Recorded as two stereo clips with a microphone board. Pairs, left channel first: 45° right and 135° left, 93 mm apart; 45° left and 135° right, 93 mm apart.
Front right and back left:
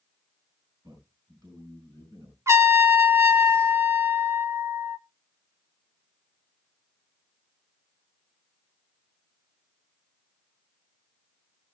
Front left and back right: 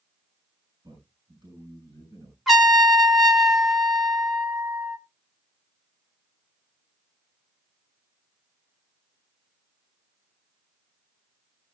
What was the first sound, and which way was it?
A man speaking, straight behind.